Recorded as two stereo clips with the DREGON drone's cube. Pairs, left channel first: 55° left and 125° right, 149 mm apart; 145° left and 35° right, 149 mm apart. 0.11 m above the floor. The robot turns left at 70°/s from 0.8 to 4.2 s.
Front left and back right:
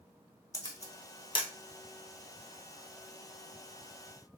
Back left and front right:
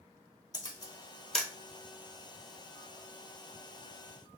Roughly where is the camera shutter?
Left.